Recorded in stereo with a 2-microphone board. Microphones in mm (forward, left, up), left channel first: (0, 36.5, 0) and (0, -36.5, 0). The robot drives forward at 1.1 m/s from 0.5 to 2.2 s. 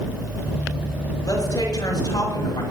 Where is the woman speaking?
55° left (ahead or behind), 6 m; by 2.6 s 65° left (ahead or behind), 5.5 m.